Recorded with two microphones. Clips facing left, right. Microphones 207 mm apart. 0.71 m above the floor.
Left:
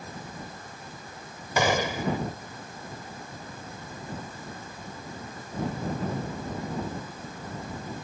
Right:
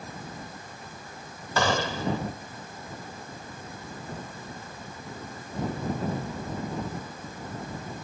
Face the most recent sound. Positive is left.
turn(degrees=15)  # may be behind; listen again after turning